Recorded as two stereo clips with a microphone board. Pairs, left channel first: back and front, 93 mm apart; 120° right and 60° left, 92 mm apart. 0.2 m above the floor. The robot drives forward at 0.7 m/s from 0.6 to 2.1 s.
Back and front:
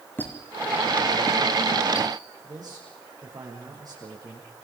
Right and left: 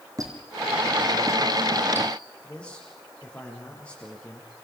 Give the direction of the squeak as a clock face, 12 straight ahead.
8 o'clock.